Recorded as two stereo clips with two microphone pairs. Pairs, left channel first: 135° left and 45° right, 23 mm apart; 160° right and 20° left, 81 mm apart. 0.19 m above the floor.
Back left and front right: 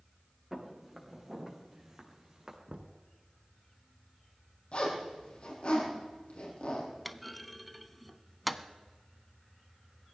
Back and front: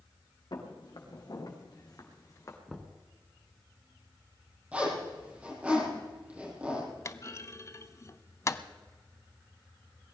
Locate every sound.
0.5 s footsteps: 130° right, 4.5 m; by 2.6 s 110° right, 3.5 m
2.7 s knocking: 75° right, 1.3 m
4.7 s a zipper: 95° left, 6.5 m
7.0 s a clunk: 140° right, 0.6 m